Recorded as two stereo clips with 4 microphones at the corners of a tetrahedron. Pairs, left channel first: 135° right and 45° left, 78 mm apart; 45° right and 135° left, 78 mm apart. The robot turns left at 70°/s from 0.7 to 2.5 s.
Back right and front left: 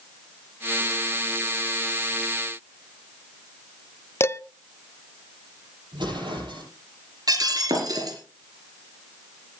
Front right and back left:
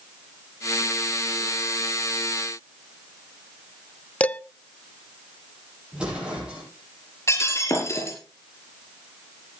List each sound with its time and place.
4.2 s dishes clattering: 105° right, 0.5 m
5.9 s an explosion: 60° left, 9.5 m
7.3 s breaking glass: 10° left, 4.5 m